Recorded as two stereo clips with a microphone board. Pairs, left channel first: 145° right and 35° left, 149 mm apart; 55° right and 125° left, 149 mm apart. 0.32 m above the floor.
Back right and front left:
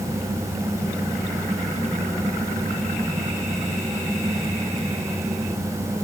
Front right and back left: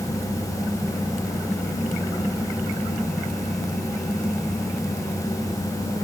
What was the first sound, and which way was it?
Only background noise.